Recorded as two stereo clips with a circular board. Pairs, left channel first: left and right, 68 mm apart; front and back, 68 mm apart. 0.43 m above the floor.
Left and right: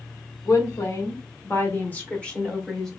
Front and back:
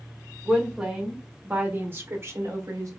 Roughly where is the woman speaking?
Left.